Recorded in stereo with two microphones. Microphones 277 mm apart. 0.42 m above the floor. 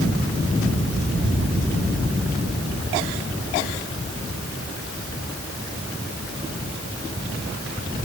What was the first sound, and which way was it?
Only background noise.